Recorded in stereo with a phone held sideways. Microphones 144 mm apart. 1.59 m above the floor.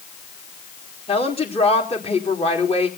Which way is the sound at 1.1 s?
45° left (ahead or behind).